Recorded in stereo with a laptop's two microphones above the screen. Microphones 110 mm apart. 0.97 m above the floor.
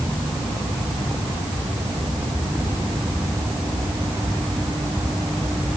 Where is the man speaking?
I don't hear a man speaking.